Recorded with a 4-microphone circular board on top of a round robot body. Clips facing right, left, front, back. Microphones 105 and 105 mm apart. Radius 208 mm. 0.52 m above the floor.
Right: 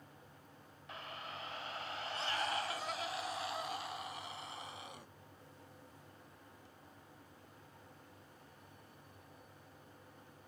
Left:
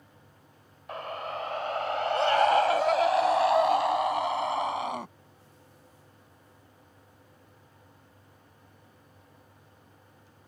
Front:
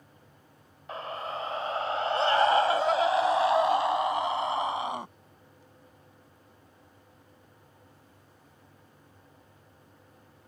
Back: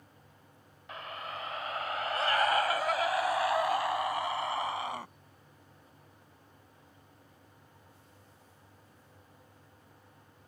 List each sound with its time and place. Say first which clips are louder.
0.9 s a scream: left 13 dB, front 6 dB; 55° left; by 5.1 s 70° left